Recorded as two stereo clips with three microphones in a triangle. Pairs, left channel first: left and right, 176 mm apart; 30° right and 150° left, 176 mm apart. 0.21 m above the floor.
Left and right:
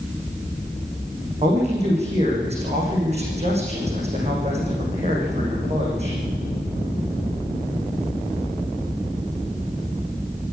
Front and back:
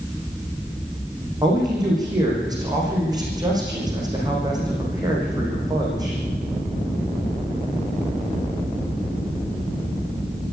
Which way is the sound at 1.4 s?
140° right.